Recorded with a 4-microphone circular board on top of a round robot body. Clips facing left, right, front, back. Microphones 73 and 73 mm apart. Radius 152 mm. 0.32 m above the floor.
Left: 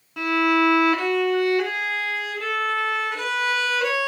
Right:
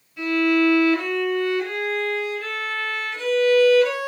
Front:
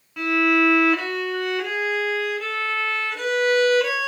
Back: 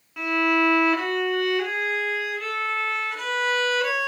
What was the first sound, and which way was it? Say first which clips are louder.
A violin: even, front 2 dB; 90° left.